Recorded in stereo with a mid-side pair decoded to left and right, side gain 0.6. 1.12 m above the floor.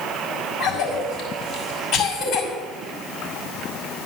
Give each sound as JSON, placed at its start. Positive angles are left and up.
{"t": 0.6, "sound": "a cough", "azimuth_deg": 70, "distance_m": 6.0}